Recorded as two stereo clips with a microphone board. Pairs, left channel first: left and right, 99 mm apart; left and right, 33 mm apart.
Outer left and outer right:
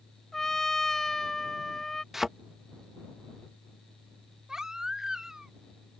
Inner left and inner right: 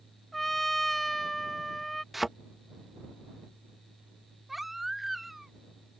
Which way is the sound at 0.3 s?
5° left (ahead or behind).